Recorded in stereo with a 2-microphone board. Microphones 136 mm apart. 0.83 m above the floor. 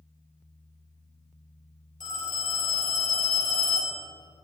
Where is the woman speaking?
No woman speaking in this recording.